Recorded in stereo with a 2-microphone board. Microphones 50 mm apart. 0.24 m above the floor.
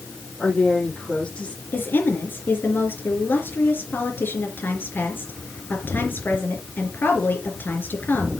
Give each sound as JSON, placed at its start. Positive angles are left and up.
{"t": 0.4, "sound": "a woman speaking", "side_deg": 25, "distance_m": 7.0}
{"t": 1.7, "sound": "a woman speaking", "side_deg": 45, "distance_m": 4.0}